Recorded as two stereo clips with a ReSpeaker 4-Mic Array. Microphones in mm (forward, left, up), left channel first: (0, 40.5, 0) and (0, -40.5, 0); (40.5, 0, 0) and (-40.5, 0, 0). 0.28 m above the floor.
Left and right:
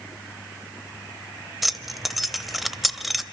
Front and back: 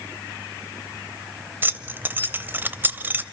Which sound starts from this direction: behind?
Keys jangling, at 1.6 s.